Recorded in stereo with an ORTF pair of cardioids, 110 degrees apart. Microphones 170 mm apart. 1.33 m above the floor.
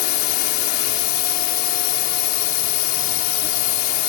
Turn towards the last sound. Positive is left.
turn(degrees=70)